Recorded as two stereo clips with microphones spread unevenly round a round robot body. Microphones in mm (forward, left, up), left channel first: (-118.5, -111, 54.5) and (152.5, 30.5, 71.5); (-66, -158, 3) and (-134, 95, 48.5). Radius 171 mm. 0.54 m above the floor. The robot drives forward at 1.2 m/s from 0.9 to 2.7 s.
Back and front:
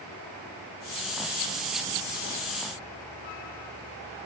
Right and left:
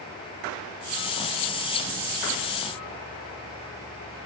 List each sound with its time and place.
Only background noise.